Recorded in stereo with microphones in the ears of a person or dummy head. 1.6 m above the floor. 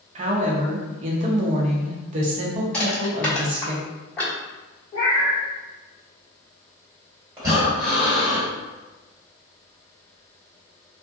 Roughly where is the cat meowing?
Left.